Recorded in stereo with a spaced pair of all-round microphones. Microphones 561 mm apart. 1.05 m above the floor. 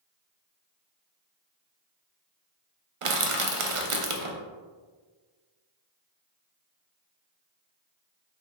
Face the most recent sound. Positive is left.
turn(degrees=-60)  # may be behind; listen again after turning